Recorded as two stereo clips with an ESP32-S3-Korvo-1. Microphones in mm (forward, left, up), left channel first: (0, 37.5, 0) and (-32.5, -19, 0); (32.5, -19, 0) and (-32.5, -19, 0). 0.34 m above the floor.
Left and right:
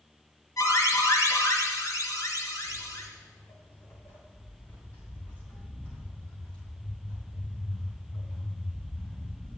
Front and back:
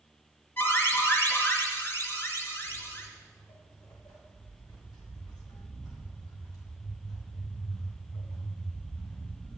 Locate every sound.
0.6 s an alarm: 40° left, 3 m
2.6 s footsteps: 5° left, 5.5 m; by 9.6 s 20° right, 9 m